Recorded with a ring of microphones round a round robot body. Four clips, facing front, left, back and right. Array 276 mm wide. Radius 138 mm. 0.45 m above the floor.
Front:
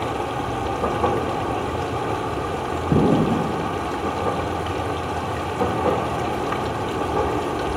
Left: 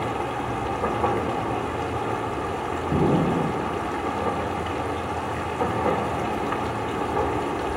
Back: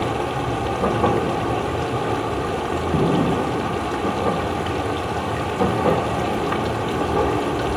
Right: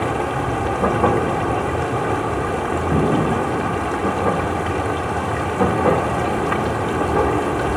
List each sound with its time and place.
0.0 s running water: 110° right, 1.0 m
2.9 s an explosion: 15° right, 8.5 m